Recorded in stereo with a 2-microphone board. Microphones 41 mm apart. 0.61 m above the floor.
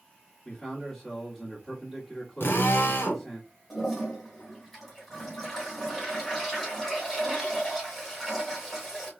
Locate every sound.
0.5 s a man speaking: 15° left (ahead or behind), 1.5 m
2.4 s a drill: 75° left (ahead or behind), 1.0 m
3.7 s a toilet flushing: 10° left (ahead or behind), 1.8 m